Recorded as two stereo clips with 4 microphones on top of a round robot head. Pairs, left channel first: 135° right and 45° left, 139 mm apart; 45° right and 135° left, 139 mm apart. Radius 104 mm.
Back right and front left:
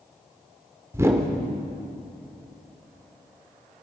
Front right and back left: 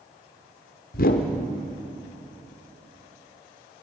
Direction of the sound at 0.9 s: 25° right.